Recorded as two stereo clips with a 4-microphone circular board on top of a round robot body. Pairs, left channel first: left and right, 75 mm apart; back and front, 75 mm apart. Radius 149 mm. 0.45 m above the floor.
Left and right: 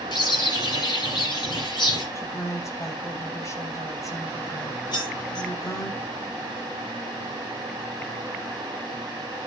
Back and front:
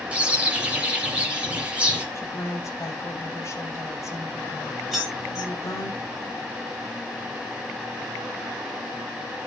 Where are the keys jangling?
85° left, 7.5 m.